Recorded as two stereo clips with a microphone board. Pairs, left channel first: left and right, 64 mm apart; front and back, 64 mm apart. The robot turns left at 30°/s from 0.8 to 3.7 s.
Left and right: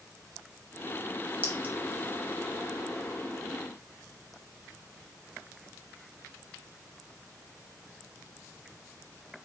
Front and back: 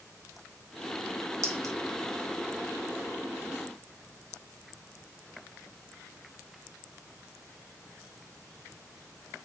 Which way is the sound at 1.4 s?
145° right.